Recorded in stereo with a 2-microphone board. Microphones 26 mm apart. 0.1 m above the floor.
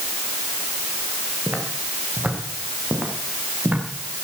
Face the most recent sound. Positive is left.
turn(degrees=-75)  # may be behind; listen again after turning